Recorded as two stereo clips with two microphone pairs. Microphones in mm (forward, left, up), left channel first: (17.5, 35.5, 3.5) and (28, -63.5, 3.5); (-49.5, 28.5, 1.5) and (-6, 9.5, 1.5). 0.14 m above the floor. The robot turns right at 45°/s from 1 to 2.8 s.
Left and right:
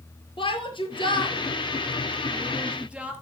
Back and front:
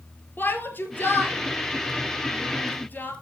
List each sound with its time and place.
0.4 s a shout: 120° left, 3 m; by 3.1 s 160° right, 3 m